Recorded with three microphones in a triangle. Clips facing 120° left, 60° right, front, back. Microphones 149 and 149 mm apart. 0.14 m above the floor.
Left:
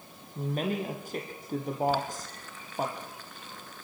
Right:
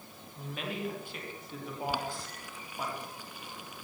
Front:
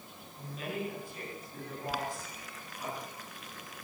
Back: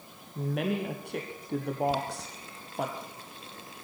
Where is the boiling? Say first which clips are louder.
Left 5 dB, back 6 dB; 135° right, 2 m.